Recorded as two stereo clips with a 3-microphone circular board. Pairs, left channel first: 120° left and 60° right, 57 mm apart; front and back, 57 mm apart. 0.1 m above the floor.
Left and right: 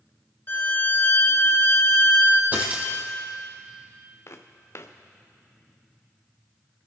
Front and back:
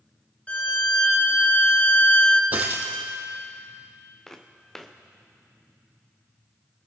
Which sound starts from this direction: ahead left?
A violin, at 0.5 s.